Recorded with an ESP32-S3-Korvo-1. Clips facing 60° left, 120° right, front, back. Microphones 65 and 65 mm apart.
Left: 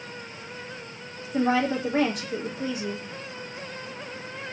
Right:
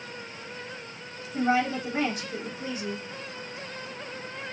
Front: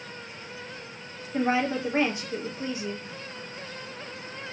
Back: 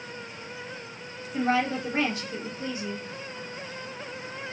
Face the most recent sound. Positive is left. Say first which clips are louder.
# left 2 dB, even
turn(degrees=70)